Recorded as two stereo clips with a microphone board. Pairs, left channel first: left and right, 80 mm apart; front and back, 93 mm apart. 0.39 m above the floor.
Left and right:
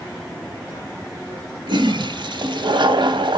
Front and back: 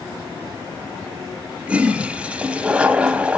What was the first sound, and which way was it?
A toilet flushing, 105° right.